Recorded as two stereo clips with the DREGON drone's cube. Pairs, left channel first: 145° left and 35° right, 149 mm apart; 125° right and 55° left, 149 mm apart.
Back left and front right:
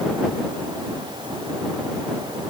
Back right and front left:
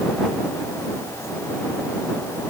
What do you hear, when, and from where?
Only background noise.